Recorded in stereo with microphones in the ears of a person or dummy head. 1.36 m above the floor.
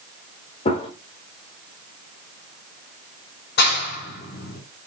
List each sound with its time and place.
0.7 s a gunshot: 30° left (ahead or behind), 2.5 m
3.6 s a clap: 60° left (ahead or behind), 4.5 m